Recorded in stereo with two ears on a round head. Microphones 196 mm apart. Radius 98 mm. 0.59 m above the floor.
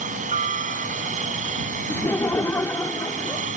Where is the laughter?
10° left (ahead or behind).